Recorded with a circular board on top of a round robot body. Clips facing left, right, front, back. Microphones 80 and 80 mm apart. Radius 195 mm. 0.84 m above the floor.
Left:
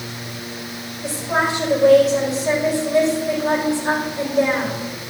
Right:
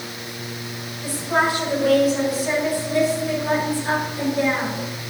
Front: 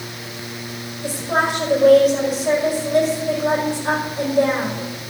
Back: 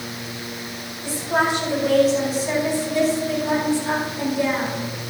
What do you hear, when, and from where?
1.0 s a woman speaking: 30° left, 4.5 m